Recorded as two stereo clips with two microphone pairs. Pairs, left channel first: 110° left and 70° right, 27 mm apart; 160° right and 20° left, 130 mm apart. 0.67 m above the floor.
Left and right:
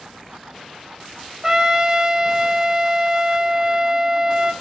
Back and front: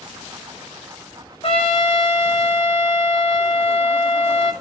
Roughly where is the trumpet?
Behind right.